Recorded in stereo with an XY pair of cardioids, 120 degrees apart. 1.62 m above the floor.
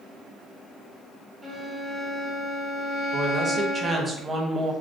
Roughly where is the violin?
Ahead.